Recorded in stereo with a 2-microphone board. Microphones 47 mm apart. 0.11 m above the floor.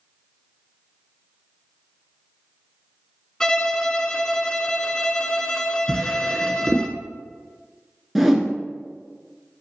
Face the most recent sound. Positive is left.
turn(degrees=0)  # may be behind; listen again after turning